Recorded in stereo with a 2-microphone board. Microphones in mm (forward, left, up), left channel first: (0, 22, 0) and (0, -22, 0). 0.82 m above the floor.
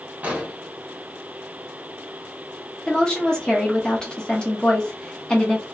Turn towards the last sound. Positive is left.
turn(degrees=15)  # may be behind; listen again after turning